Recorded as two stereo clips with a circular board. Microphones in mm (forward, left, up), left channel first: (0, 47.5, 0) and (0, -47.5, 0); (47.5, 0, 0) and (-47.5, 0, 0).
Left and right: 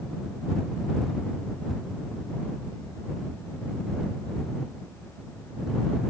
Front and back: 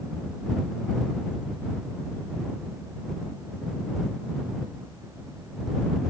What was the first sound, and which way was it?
Only background noise.